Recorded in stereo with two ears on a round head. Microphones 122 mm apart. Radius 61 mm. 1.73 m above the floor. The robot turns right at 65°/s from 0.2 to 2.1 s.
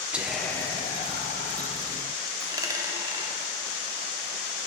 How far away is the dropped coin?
About 1.3 m.